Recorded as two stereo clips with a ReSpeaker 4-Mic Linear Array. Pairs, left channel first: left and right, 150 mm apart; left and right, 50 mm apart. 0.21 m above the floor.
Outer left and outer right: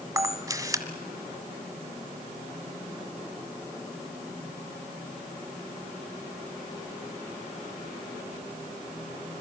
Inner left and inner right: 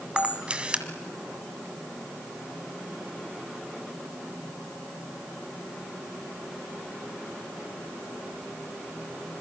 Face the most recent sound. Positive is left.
turn(degrees=-25)  # may be behind; listen again after turning